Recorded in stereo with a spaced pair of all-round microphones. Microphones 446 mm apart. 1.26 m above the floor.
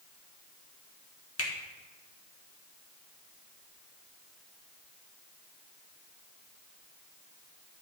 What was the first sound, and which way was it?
A finger snap, 30° left (ahead or behind).